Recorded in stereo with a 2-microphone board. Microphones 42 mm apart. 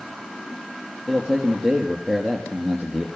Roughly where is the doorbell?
No doorbell in this recording.